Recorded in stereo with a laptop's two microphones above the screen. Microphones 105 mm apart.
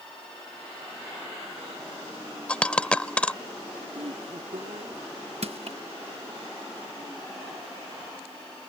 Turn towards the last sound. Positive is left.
turn(degrees=-65)  # may be behind; listen again after turning